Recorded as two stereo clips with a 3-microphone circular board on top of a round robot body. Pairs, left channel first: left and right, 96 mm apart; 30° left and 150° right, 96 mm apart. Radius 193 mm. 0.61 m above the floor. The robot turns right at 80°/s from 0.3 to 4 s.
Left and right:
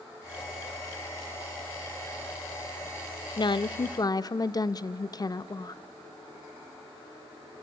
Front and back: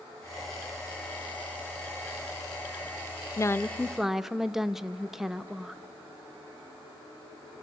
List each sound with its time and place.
3.4 s a woman speaking: 75° left, 0.7 m; by 5.8 s 125° left, 0.7 m